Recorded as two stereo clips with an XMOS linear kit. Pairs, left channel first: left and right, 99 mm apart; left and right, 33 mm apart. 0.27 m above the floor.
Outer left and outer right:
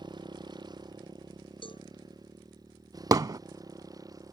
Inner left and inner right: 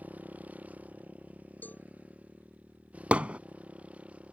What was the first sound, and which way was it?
A motorcycle, 50° right (ahead or behind).